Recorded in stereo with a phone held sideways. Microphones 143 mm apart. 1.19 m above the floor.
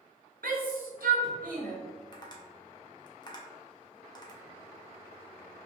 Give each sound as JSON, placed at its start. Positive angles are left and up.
{"t": 0.4, "sound": "a shout", "side_deg": -80, "distance_m": 0.8}
{"t": 2.1, "sound": "tapping", "side_deg": 30, "distance_m": 0.7}